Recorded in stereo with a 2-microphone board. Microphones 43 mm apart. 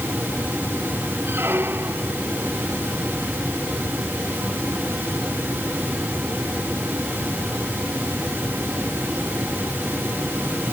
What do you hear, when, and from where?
1.3 s a squeak: 55° right (ahead or behind)